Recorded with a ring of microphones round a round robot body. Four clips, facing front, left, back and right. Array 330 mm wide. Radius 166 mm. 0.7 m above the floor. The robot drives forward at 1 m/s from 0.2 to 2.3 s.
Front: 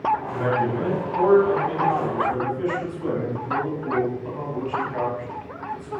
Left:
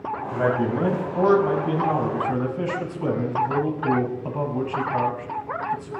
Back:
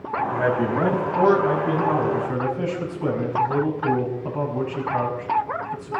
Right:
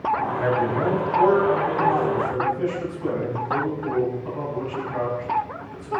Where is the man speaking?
100° left, 5.5 m; by 5.9 s 120° left, 6 m.